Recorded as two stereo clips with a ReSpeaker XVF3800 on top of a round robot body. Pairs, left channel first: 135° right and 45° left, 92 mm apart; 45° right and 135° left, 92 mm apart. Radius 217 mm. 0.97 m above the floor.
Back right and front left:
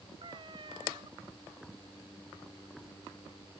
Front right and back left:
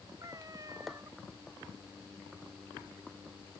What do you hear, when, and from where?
0.2 s a cat meowing: 80° left